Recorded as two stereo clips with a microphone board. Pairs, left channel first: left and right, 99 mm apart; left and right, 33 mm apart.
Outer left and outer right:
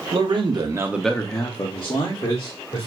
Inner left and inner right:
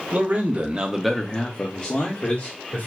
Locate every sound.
0.1 s a man speaking: 60° right (ahead or behind), 1.0 m; by 2.9 s 80° left, 1.8 m